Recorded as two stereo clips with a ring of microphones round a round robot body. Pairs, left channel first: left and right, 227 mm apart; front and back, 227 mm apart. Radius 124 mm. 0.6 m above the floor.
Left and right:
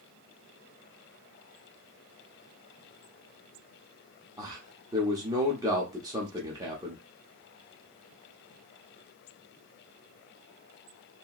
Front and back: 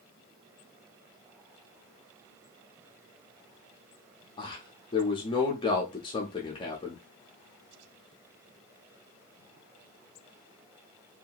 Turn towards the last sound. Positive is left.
turn(degrees=-35)